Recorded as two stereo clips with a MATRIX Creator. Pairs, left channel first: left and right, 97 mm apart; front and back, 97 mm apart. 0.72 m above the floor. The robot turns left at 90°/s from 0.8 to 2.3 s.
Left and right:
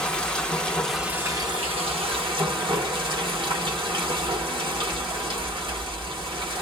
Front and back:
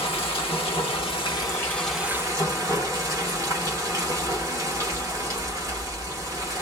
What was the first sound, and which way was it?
Running water, 10° left.